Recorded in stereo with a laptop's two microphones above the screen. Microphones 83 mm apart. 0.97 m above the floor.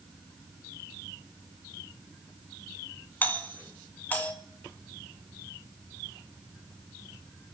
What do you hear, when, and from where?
3.2 s a doorbell: 25° left (ahead or behind), 2.5 m